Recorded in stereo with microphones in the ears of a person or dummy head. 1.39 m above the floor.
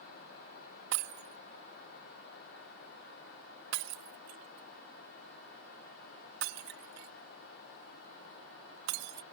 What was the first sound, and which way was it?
Breaking glass, 55° right (ahead or behind).